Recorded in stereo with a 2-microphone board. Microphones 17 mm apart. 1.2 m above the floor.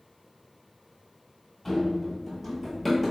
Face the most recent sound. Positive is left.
turn(degrees=-10)  # may be behind; listen again after turning